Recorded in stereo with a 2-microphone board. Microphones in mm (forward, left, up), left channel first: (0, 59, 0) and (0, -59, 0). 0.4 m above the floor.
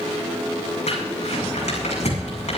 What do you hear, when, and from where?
0.9 s crumpling: 70° left (ahead or behind), 8 m